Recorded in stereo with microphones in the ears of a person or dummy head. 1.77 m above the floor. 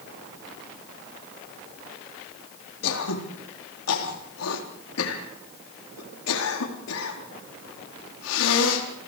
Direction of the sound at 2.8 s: 80° left.